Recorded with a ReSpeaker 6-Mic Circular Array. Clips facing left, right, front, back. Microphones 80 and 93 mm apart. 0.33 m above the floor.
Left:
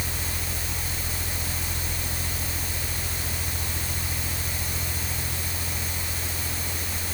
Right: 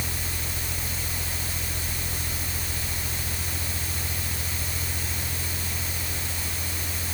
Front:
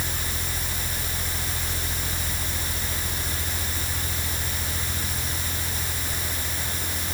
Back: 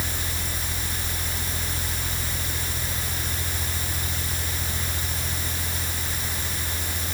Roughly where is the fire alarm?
No fire alarm in this recording.